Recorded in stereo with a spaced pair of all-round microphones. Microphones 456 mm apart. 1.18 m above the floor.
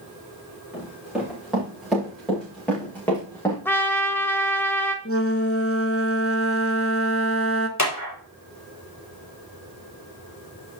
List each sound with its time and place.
0.7 s running footsteps: centre (ahead or behind), 6.5 m; by 3.5 s 5° left (ahead or behind), 5 m
3.6 s a trumpet: 5° left (ahead or behind), 1.1 m
5.0 s a flute: 30° left (ahead or behind), 0.8 m
7.8 s a clap: 35° left (ahead or behind), 2 m